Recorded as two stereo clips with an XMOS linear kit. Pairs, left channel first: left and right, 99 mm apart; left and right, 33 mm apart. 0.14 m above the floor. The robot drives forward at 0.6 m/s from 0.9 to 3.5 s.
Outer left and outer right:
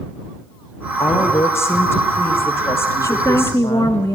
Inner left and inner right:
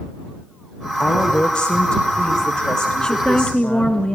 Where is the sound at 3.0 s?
30° left (ahead or behind), 1.1 m; by 4.2 s 25° left (ahead or behind), 1.2 m.